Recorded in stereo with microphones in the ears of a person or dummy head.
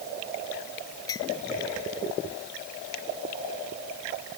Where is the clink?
25° left (ahead or behind).